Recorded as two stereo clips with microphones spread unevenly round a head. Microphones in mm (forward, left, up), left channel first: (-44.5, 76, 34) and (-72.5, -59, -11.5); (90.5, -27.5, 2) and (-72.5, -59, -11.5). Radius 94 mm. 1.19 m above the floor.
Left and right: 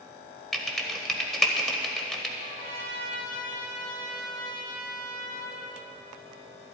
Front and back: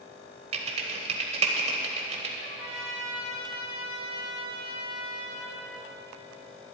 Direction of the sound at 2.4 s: 100° left.